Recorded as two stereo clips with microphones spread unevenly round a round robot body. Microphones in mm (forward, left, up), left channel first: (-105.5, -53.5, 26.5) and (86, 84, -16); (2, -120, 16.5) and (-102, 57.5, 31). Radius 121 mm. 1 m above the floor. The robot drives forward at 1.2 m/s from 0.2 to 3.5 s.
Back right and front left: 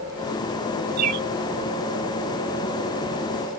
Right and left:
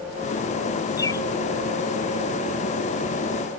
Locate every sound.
1.0 s a bird: 15° left; by 1.3 s 20° left